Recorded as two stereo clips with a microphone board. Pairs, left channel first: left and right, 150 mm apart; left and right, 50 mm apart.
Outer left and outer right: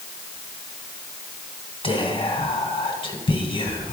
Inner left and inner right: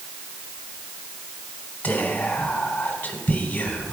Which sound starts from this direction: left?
Whispering, at 1.8 s.